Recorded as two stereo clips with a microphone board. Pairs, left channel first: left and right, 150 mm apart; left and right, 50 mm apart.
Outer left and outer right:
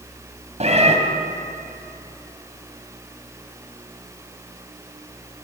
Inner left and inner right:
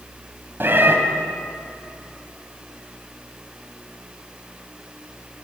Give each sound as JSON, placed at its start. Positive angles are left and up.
{"t": 0.6, "sound": "a cat meowing", "side_deg": -45, "distance_m": 2.5}